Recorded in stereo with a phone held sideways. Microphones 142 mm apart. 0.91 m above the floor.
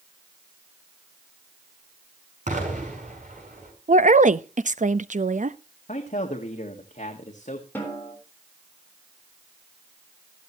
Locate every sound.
2.5 s an explosion: 60° right (ahead or behind), 6 m
3.9 s a woman speaking: 65° right (ahead or behind), 0.6 m
5.9 s a man speaking: 65° left (ahead or behind), 1.8 m
7.8 s a snare drum: 15° left (ahead or behind), 4 m